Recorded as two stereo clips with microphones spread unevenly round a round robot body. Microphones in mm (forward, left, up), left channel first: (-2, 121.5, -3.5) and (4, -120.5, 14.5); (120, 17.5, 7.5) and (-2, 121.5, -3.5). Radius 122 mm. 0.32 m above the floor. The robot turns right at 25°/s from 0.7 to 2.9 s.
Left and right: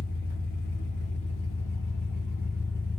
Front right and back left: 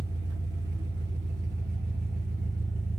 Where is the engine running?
145° left, 1.1 m; by 3.0 s 160° right, 1.1 m.